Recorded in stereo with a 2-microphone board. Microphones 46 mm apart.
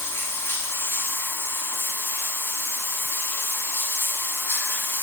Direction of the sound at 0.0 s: 60° left (ahead or behind).